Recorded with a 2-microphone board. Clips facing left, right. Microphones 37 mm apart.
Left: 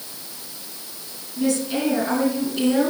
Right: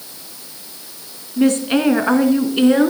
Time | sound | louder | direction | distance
1.4 | a woman speaking | right 7 dB | 55° right (ahead or behind) | 2.5 m